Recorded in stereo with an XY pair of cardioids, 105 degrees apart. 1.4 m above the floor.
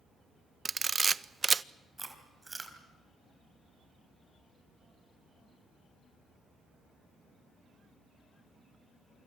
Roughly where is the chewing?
Ahead.